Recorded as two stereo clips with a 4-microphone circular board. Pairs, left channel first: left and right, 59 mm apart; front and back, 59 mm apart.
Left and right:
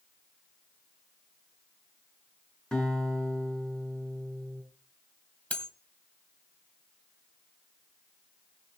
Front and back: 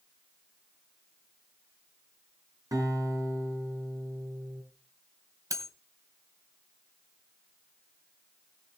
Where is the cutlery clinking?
160° left, 2.0 m.